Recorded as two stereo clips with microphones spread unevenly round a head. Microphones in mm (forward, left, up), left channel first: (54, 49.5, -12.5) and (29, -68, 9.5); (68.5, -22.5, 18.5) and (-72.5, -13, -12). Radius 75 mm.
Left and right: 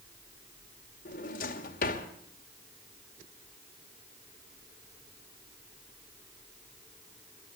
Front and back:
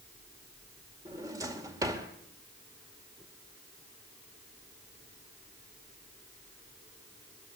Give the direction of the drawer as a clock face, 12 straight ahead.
9 o'clock.